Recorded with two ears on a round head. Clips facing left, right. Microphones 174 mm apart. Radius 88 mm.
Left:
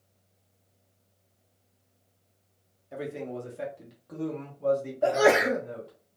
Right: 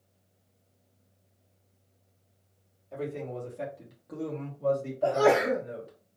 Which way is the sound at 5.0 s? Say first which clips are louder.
Left 1 dB; 20° left (ahead or behind).